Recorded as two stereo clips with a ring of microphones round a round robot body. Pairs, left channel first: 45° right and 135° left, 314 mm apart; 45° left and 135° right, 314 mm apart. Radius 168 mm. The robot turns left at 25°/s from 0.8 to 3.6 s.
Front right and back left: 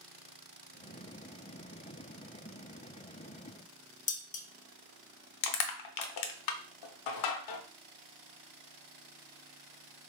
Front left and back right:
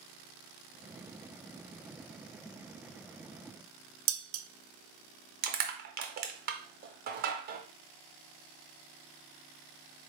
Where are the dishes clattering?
110° right, 0.5 m.